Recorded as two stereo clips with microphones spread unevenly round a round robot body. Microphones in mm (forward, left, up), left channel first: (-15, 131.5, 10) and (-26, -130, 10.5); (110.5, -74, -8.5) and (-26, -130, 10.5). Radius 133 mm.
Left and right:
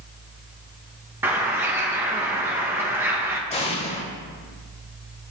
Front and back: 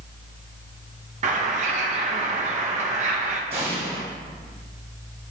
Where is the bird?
170° right, 0.7 m.